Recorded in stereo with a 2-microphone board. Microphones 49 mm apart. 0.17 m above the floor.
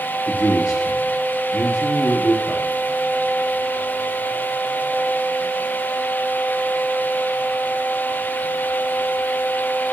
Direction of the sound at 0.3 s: 75° left (ahead or behind).